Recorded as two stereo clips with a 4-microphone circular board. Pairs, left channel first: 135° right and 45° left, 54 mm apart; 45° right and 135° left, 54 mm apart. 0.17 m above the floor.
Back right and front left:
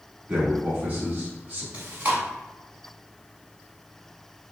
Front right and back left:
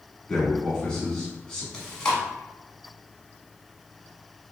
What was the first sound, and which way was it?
A man speaking, 25° left.